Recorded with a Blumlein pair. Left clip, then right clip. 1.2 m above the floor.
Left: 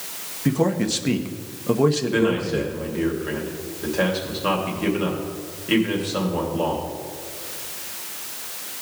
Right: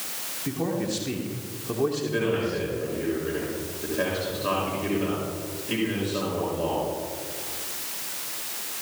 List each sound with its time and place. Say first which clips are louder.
0.5 s a man speaking: left 7 dB; 45° left, 1.1 m
2.1 s a man speaking: left 4 dB; 30° left, 2.5 m